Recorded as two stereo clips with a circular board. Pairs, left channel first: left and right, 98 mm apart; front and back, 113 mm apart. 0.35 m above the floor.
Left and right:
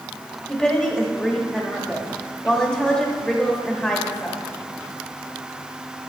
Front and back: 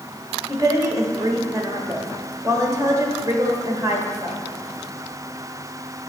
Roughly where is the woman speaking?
Behind.